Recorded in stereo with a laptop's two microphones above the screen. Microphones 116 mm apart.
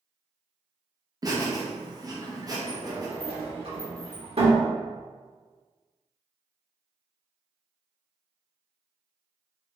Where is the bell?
I don't hear a bell.